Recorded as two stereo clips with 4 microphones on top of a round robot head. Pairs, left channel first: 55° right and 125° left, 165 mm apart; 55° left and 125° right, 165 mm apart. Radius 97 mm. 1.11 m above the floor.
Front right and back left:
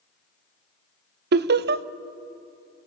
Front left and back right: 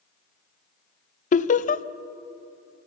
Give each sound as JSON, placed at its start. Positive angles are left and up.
{"t": 1.3, "sound": "laughter", "azimuth_deg": 100, "distance_m": 0.7}